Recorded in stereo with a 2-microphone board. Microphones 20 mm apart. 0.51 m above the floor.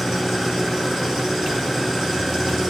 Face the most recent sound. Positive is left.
turn(degrees=0)  # may be behind; listen again after turning